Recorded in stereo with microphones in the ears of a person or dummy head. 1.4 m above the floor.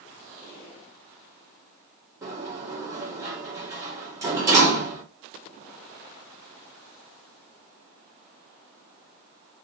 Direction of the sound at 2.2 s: 15° right (ahead or behind).